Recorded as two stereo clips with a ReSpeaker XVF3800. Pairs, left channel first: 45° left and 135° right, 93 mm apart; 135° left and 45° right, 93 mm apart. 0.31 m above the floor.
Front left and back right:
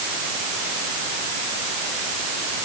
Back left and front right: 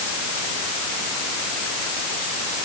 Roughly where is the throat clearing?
I don't hear throat clearing.